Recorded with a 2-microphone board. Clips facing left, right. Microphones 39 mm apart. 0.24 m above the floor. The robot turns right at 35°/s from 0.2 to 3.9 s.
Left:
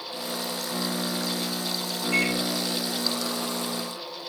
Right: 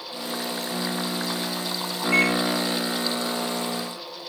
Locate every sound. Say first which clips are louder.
2.1 s a microwave: right 4 dB; 30° right (ahead or behind), 2 m; by 2.4 s 35° right (ahead or behind), 2 m